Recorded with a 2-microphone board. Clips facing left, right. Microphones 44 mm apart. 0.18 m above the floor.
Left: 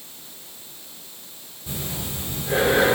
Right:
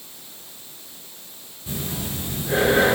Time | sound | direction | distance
1.7 | breathing | centre (ahead or behind) | 9 m